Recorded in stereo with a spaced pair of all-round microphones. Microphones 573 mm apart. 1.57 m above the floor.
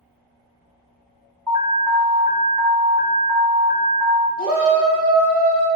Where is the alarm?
35° right (ahead or behind), 0.6 m.